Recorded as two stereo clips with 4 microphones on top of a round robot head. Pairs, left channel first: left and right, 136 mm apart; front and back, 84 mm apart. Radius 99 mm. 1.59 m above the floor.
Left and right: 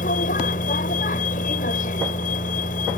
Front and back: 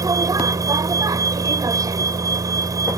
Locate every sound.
0.0 s a vehicle: 135° left